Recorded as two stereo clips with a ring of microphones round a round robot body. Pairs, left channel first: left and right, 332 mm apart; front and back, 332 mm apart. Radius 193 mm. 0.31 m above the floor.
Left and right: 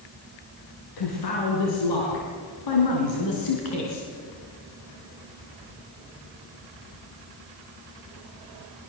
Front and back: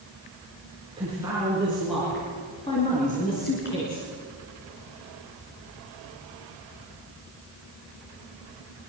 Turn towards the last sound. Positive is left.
turn(degrees=55)